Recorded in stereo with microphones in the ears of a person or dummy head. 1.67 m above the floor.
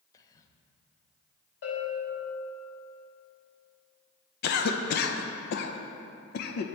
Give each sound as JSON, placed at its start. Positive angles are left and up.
{"t": 0.1, "sound": "whispering", "side_deg": 25, "distance_m": 0.6}
{"t": 1.6, "sound": "a bell", "side_deg": 45, "distance_m": 2.5}
{"t": 4.4, "sound": "a cough", "side_deg": 65, "distance_m": 0.6}